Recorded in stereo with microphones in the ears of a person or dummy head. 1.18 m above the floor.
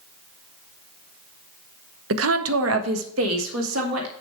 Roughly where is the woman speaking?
Right.